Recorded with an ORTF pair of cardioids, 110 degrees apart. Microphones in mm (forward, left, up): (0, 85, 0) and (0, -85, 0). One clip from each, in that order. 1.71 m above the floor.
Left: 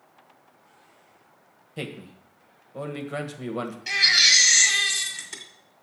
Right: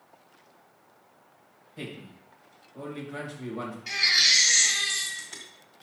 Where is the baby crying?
35° left, 1.8 m.